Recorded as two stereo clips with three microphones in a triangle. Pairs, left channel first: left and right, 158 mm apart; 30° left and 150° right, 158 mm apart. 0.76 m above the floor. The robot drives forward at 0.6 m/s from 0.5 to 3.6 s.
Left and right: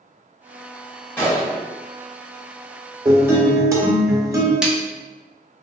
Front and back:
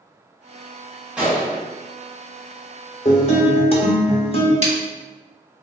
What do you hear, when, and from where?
1.2 s a gunshot: 135° left, 0.9 m; by 1.6 s 160° left, 1.0 m
3.0 s a guitar: 15° right, 0.8 m; by 4.5 s 25° right, 0.5 m
4.6 s a snare drum: 175° right, 0.5 m